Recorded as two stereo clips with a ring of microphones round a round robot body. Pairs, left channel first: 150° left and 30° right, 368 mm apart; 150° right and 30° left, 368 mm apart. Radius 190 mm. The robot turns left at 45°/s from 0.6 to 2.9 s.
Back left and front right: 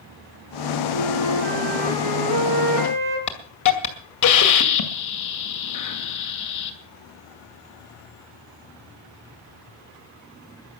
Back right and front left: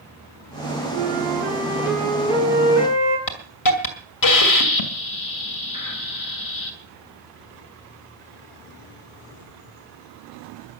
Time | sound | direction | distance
0.9 | a flute | 15° right | 4.5 m
3.3 | a hiss | 175° right | 2.5 m